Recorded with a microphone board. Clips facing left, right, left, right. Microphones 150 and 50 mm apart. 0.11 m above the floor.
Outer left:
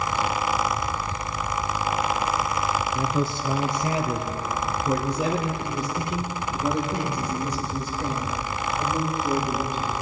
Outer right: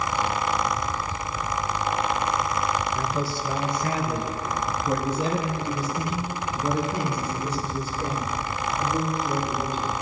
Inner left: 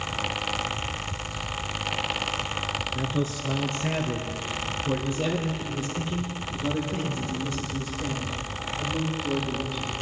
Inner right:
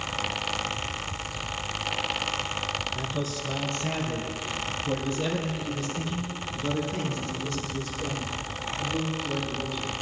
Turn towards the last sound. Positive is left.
turn(degrees=10)  # may be behind; listen again after turning